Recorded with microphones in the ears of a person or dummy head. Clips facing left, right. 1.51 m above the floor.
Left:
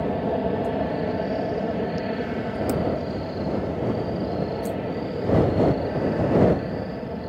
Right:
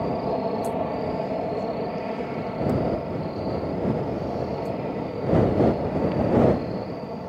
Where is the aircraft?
10° left (ahead or behind).